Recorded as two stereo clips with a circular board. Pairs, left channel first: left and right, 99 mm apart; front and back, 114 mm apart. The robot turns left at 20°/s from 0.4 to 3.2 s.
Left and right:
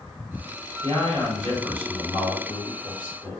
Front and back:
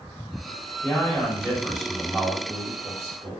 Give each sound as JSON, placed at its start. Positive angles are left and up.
{"t": 0.8, "sound": "a man speaking", "azimuth_deg": -75, "distance_m": 1.6}